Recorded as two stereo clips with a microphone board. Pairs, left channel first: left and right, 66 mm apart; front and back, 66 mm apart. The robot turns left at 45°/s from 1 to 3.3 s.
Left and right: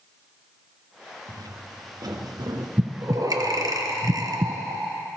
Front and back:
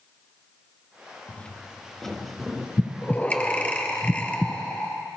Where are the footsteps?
70° right, 1.9 m; by 2.7 s 95° right, 2 m.